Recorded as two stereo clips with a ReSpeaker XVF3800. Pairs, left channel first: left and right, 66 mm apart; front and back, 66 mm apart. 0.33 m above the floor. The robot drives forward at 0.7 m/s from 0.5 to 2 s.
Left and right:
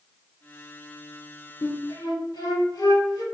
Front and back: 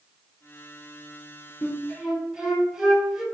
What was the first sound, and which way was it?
A flute, 85° left.